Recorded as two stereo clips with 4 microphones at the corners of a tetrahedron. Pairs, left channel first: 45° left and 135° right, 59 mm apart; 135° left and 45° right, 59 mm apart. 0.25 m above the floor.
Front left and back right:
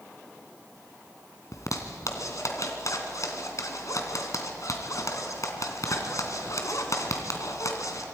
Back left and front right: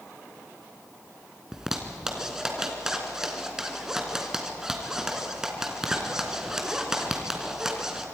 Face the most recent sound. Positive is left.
turn(degrees=35)